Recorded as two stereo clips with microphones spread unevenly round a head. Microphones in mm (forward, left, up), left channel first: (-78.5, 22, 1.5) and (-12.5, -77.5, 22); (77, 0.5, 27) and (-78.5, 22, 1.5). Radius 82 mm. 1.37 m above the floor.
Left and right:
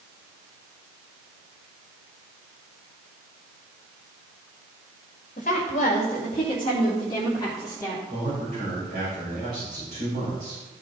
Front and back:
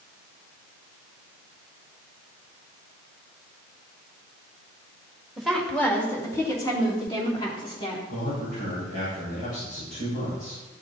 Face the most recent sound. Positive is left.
turn(degrees=-15)